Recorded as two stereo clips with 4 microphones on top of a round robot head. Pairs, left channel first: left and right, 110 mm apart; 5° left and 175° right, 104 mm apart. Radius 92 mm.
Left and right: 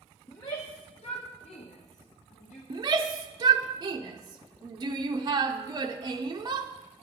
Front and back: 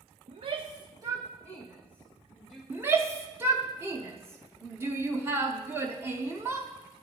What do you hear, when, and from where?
0.3 s a shout: 160° left, 0.8 m; by 2.6 s 110° left, 1.8 m
2.7 s a shout: 120° right, 0.7 m